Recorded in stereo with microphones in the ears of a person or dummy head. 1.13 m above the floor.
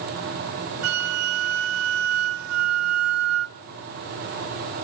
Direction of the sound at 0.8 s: 75° right (ahead or behind).